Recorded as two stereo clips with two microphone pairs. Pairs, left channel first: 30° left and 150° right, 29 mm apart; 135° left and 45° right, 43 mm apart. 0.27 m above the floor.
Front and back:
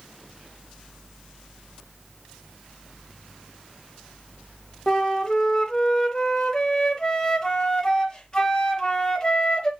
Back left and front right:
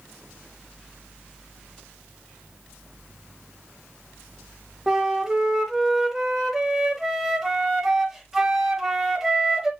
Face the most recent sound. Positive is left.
turn(degrees=25)